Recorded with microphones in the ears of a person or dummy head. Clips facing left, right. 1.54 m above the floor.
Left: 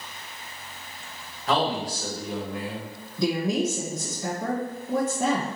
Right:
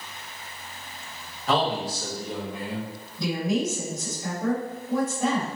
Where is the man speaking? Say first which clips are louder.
Even; centre (ahead or behind), 2 m.